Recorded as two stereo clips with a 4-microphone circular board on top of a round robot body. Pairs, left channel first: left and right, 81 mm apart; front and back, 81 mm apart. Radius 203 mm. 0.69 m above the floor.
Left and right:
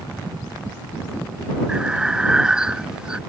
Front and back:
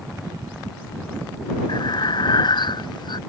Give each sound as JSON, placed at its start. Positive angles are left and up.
{"t": 1.7, "sound": "breathing", "azimuth_deg": -10}